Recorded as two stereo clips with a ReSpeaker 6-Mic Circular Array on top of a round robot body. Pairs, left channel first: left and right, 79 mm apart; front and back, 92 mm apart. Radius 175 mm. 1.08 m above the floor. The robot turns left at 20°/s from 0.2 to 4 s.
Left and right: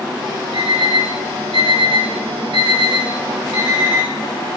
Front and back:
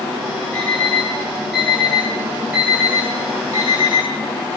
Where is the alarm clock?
70° right, 7 m; by 4.1 s 140° right, 7 m.